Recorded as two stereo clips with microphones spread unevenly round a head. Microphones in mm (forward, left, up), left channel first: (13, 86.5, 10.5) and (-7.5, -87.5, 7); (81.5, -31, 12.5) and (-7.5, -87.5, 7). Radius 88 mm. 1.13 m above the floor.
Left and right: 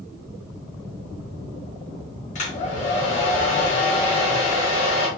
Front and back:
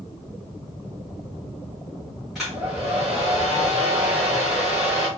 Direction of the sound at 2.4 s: 120° left.